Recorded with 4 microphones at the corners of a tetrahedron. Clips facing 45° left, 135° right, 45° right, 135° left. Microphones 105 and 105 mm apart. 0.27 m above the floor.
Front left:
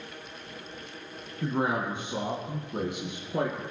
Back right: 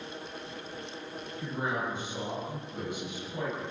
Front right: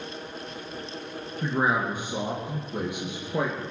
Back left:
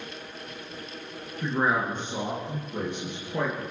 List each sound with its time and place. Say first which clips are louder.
1.4 s a man speaking: front left 5 dB, even; 40° left, 3 m; by 3.6 s 30° left, 4 m